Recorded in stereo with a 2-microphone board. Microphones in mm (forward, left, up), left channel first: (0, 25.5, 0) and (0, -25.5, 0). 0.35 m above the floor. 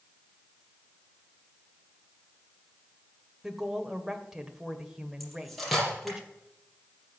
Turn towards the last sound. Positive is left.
turn(degrees=0)  # may be behind; listen again after turning